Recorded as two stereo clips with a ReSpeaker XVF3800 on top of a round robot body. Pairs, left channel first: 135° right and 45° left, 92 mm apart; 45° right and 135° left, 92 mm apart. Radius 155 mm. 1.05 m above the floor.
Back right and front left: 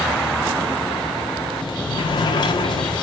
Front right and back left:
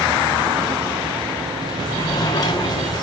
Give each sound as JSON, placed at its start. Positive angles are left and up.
{"t": 1.6, "sound": "a sliding door", "azimuth_deg": -90, "distance_m": 1.3}